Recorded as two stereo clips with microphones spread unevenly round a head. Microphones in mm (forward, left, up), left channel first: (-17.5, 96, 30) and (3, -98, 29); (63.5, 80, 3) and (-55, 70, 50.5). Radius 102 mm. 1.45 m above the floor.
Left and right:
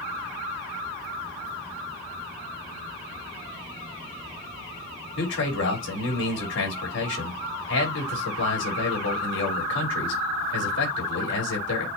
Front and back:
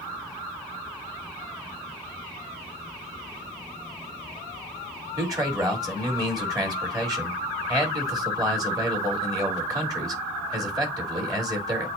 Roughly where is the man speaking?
Behind left.